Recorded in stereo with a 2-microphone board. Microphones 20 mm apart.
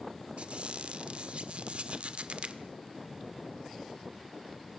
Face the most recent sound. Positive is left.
turn(degrees=-65)  # may be behind; listen again after turning